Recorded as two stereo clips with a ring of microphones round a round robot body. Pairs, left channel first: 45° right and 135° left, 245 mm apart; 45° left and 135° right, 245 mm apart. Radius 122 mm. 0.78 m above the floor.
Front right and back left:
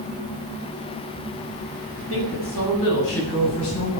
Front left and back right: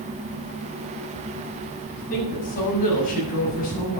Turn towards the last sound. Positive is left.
turn(degrees=-10)